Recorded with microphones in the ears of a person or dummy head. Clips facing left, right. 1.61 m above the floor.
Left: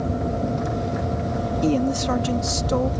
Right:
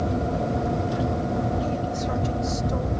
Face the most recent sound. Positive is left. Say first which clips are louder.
# left 6 dB
turn(degrees=70)  # may be behind; listen again after turning